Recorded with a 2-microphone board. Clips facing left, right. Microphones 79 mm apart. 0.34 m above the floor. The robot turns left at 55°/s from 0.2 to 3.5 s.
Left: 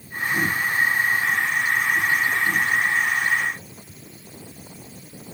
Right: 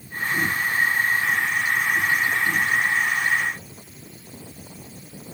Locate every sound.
Only background noise.